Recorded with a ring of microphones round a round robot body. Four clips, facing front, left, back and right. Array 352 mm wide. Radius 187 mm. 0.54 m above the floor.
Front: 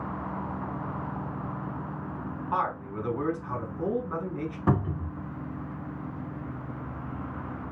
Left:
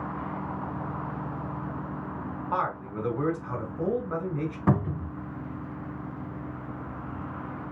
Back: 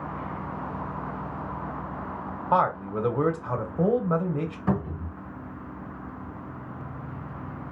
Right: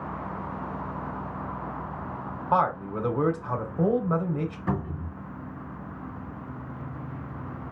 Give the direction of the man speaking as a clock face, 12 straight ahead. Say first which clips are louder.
Right 6 dB, back 7 dB; 5 o'clock.